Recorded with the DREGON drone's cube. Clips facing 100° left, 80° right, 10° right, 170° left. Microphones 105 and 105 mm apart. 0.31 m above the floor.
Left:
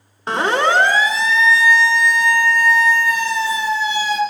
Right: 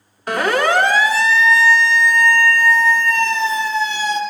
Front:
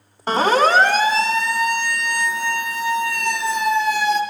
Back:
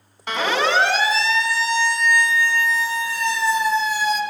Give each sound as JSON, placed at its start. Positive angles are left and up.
{"t": 0.3, "sound": "a siren", "azimuth_deg": 40, "distance_m": 2.5}